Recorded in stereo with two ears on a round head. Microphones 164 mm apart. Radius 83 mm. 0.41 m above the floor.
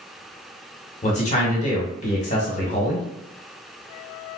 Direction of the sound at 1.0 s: 40° left (ahead or behind).